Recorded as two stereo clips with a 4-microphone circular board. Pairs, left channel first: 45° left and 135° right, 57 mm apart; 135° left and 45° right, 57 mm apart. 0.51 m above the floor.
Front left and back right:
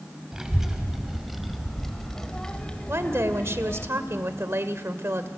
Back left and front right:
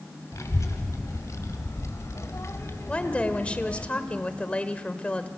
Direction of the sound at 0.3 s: 145° left.